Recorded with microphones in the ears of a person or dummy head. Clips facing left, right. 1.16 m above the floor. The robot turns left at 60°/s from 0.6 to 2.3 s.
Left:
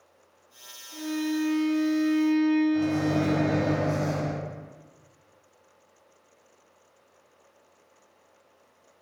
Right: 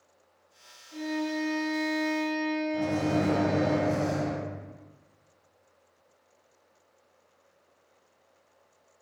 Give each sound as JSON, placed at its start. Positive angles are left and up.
{"t": 0.9, "sound": "a violin", "azimuth_deg": -160, "distance_m": 1.4}
{"t": 2.7, "sound": "a microwave", "side_deg": -5, "distance_m": 1.5}